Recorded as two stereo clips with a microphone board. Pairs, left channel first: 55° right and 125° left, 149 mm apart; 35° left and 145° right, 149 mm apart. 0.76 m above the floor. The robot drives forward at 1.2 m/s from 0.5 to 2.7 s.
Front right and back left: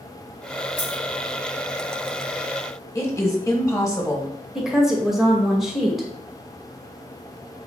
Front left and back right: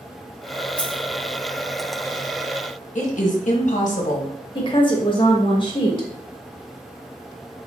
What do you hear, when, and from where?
0.8 s a dropped coin: 45° right, 1.3 m; by 1.0 s 60° right, 1.1 m
3.0 s a woman speaking: 15° left, 1.0 m
4.5 s a woman speaking: 40° left, 0.9 m